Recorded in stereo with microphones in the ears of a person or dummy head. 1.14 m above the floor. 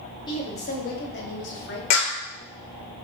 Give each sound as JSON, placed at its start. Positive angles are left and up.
{"t": 0.3, "sound": "a woman speaking", "side_deg": 25, "distance_m": 0.7}
{"t": 1.9, "sound": "a clap", "side_deg": 80, "distance_m": 0.8}